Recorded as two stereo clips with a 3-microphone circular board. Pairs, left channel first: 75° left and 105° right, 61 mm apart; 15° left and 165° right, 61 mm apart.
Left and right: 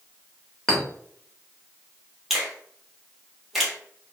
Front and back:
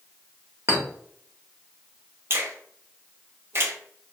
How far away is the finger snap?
About 0.6 m.